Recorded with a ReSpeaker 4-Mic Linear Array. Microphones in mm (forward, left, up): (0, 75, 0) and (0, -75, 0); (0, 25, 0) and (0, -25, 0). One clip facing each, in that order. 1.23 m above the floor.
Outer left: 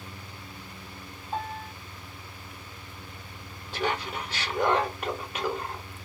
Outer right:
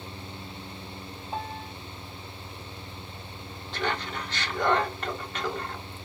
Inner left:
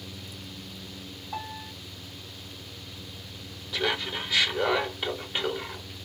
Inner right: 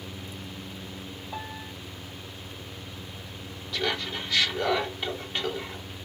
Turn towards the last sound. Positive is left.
turn(degrees=10)  # may be behind; listen again after turning